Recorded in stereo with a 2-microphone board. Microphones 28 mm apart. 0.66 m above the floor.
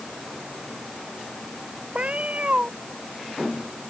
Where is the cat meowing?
55° right (ahead or behind).